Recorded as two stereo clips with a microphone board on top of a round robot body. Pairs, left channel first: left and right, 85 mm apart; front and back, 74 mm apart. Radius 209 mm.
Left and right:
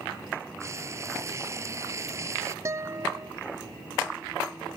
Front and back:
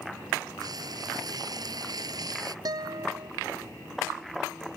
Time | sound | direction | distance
0.6 | frying | 145° right | ?
2.6 | a guitar | 145° right | ?